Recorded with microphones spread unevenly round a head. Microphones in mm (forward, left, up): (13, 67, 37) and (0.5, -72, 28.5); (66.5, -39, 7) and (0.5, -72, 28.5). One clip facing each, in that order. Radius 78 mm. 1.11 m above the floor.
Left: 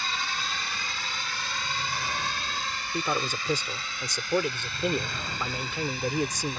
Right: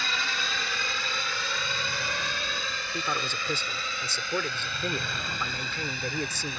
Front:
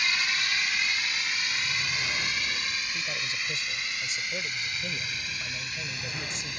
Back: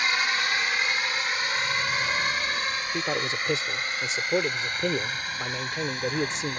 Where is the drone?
105° right; by 6.6 s 115° right.